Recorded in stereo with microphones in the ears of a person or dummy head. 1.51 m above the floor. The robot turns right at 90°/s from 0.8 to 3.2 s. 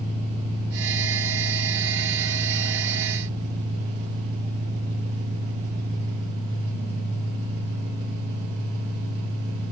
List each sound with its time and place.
0.0 s an engine running: 40° left, 4.5 m; by 9.7 s 105° right, 4.5 m